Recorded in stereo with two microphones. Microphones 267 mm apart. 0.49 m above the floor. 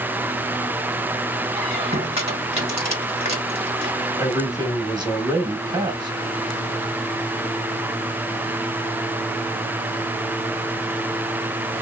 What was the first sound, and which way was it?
A squeak, 25° right (ahead or behind).